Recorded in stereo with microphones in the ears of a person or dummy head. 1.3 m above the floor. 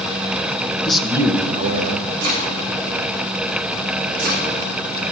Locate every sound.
0.8 s a man speaking: 5° left (ahead or behind), 1.3 m; by 2.1 s 55° right (ahead or behind), 1.9 m
2.2 s chopping: 70° right (ahead or behind), 6.5 m